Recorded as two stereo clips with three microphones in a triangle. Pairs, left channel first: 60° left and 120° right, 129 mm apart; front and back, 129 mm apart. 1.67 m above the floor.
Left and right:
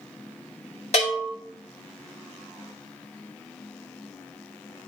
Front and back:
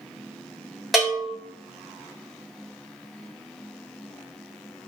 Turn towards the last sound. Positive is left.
turn(degrees=90)